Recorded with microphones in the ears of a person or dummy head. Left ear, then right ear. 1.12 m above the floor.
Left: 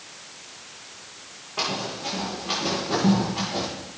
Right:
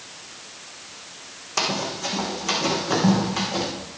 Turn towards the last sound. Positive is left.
turn(degrees=-70)  # may be behind; listen again after turning